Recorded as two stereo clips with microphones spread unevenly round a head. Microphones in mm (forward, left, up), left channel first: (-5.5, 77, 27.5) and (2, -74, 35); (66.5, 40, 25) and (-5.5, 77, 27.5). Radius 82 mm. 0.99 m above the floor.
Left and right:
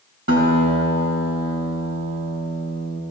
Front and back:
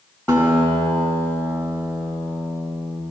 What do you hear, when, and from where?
0.3 s a guitar: 110° right, 5 m